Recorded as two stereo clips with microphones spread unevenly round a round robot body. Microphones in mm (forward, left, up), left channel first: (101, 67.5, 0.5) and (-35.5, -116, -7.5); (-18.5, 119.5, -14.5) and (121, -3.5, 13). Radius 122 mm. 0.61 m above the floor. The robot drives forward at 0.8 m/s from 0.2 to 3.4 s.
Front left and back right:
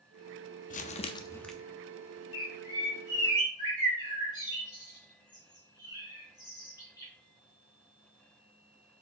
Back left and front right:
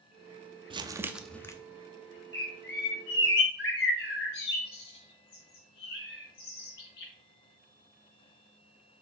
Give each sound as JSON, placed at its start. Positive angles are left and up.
{"t": 0.7, "sound": "crumpling", "azimuth_deg": 20, "distance_m": 0.8}
{"t": 2.3, "sound": "a bird", "azimuth_deg": 120, "distance_m": 4.0}